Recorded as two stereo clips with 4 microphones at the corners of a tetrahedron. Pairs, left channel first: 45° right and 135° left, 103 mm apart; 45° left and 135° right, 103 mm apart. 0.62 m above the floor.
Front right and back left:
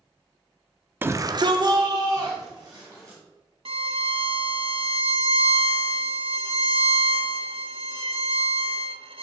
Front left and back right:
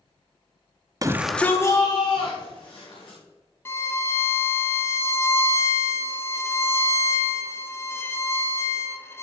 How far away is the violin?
About 0.8 m.